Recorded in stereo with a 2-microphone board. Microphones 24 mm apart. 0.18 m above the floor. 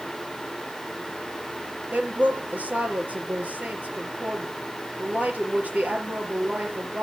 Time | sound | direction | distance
1.9 | a woman speaking | 70° right (ahead or behind) | 5.5 m